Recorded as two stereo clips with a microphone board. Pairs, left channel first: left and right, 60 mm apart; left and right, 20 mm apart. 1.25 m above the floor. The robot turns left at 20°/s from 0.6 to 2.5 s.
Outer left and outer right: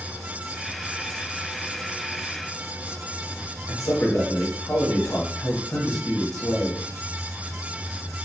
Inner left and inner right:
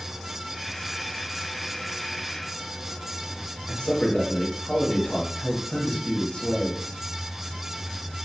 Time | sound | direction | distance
3.7 | a man speaking | 60° left (ahead or behind) | 0.8 m